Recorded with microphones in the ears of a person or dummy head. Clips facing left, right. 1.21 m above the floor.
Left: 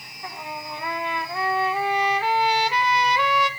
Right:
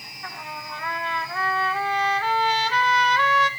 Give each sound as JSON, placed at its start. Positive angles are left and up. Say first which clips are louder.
{"t": 0.2, "sound": "a trumpet", "louder": "left 3 dB", "side_deg": 15, "distance_m": 1.0}